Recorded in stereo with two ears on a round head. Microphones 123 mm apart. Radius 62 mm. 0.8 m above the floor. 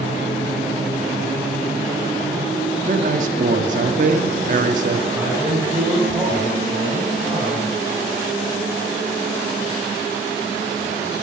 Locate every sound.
2.9 s a man speaking: 60° right (ahead or behind), 1.7 m
5.1 s a man speaking: 10° right (ahead or behind), 5 m